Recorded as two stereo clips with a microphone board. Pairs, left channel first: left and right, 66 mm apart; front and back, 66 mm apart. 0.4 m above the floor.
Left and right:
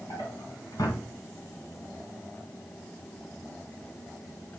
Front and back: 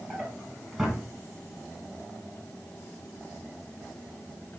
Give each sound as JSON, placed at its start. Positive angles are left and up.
{"t": 0.1, "sound": "a drawer", "azimuth_deg": 90, "distance_m": 2.0}